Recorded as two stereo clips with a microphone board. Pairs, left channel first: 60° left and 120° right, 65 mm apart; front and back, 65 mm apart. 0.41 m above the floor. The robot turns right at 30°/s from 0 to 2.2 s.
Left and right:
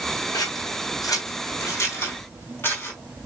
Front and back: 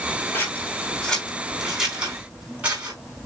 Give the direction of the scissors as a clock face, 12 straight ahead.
10 o'clock.